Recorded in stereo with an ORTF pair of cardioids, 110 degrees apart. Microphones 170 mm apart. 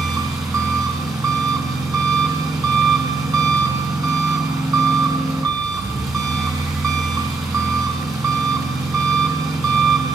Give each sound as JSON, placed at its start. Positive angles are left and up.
{"t": 0.0, "sound": "an engine running", "azimuth_deg": -20, "distance_m": 4.0}